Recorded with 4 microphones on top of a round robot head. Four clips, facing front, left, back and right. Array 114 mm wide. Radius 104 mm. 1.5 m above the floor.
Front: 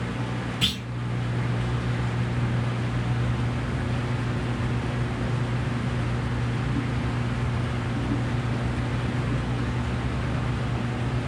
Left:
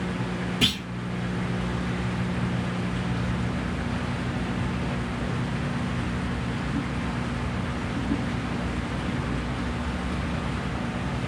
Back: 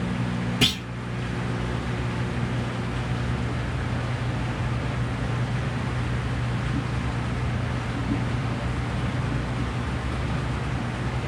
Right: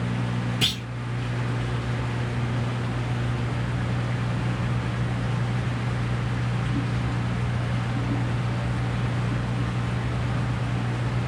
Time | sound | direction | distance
0.6 | a clunk | 175° right | 0.7 m